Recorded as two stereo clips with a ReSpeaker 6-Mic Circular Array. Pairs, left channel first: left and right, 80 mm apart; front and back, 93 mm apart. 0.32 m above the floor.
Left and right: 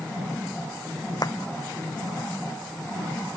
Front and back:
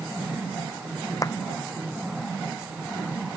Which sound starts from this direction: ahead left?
A clap, at 1.2 s.